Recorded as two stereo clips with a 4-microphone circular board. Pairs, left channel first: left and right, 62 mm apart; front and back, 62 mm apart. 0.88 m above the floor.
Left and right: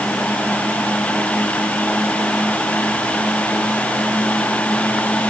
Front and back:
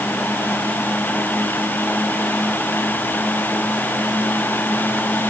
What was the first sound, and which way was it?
Only background noise.